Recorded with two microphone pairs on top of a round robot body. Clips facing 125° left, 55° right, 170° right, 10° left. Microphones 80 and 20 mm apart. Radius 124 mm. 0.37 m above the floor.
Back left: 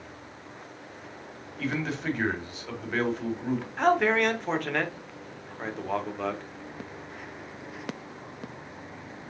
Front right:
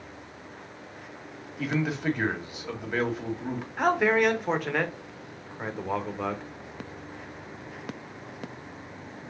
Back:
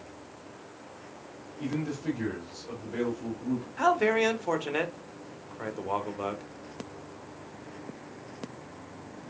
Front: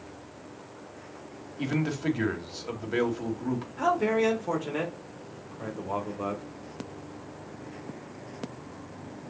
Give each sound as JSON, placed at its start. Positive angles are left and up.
{"t": 1.6, "sound": "a man speaking", "azimuth_deg": 40, "distance_m": 1.8}
{"t": 3.8, "sound": "a man speaking", "azimuth_deg": -150, "distance_m": 1.3}